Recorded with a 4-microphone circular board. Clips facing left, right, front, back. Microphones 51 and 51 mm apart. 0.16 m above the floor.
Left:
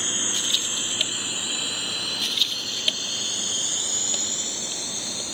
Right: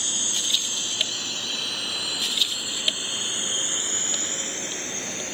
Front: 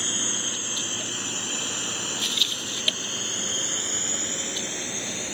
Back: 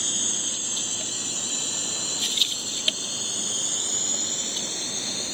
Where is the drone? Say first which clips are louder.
Left 2 dB, front 2 dB; 45° left; by 5.4 s 55° right.